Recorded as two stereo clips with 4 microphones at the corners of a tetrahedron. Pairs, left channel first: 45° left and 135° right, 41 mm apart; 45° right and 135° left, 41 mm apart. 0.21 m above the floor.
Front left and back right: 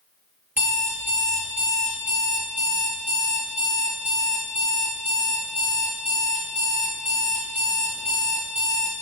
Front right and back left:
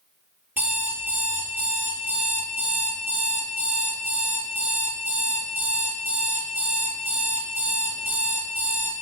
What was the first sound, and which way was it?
An alarm clock, straight behind.